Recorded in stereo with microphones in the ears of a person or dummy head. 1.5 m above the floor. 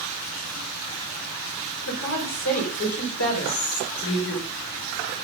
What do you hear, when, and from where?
1.9 s a woman speaking: 85° left, 5.5 m; by 4.4 s 70° left (ahead or behind), 5 m
3.4 s whispering: 85° left, 6.5 m